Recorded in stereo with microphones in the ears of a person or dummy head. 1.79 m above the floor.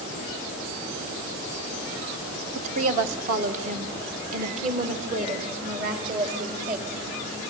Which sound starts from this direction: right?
A woman speaking, at 2.5 s.